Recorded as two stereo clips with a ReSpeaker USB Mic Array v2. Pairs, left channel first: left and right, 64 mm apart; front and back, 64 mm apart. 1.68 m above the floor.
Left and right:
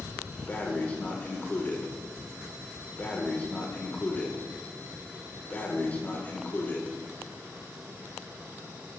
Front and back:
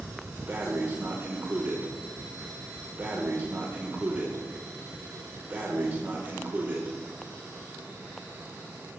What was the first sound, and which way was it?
Breathing, 135° left.